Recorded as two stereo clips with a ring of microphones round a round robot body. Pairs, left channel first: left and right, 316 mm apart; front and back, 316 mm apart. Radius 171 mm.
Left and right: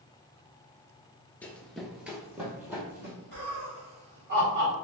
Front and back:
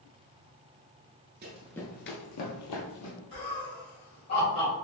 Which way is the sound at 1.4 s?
170° left.